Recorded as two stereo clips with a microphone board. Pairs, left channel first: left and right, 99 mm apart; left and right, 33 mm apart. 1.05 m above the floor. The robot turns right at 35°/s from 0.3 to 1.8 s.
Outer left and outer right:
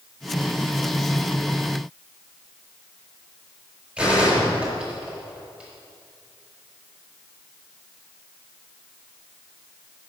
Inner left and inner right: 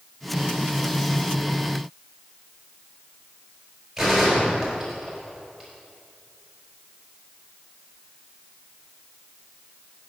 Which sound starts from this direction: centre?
A gunshot, at 4.0 s.